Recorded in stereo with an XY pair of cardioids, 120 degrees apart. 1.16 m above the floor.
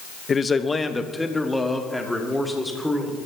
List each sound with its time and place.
0.3 s a man speaking: 30° left, 0.9 m; by 3.2 s straight ahead, 3.5 m